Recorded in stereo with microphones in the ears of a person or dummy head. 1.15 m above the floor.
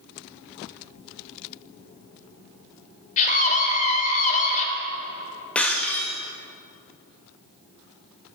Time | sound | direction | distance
3.2 | a scream | 40° left (ahead or behind) | 3.5 m
5.5 | breaking glass | 5° left (ahead or behind) | 1.3 m